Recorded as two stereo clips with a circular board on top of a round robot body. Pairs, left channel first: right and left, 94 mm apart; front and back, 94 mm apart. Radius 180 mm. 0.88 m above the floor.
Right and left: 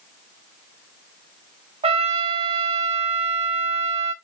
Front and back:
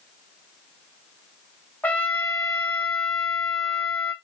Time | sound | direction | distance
1.8 | a trumpet | 75° left | 0.5 m